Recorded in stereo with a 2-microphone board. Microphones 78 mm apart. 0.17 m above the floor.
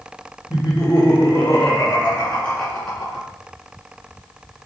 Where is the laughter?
50° left (ahead or behind), 3 m; by 3.3 s centre (ahead or behind), 2.5 m.